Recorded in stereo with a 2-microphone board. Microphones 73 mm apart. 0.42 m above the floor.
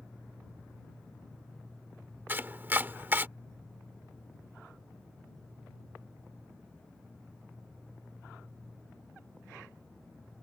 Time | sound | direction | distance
2.3 | chopping | 30° right (ahead or behind) | ?